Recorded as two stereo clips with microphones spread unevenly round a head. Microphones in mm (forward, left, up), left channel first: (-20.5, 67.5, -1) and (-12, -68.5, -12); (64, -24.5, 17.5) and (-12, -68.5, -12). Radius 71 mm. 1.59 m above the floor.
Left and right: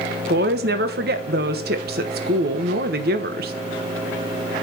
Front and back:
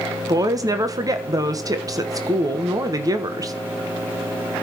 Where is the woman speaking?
100° right, 1.4 m.